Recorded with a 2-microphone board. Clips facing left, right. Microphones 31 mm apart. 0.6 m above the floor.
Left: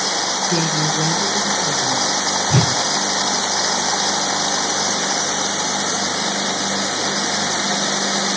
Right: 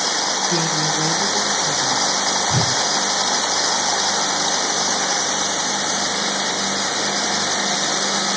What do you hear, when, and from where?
0.5 s a woman speaking: 10° left (ahead or behind), 0.8 m; by 2.2 s 5° left (ahead or behind), 2.5 m
2.5 s a whoosh: 50° left (ahead or behind), 0.7 m